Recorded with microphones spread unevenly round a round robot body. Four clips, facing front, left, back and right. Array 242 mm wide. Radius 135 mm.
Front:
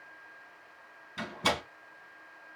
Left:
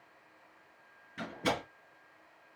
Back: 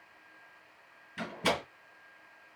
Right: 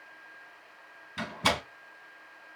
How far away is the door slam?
About 3 m.